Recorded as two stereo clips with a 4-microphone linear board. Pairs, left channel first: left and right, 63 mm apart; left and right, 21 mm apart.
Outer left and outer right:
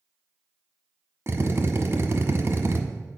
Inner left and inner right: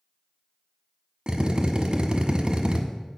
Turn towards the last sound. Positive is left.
turn(degrees=-45)  # may be behind; listen again after turning